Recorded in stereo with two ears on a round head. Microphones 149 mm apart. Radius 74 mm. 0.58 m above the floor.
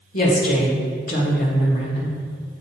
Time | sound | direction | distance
0.1 | a woman speaking | 55° left (ahead or behind) | 1.6 m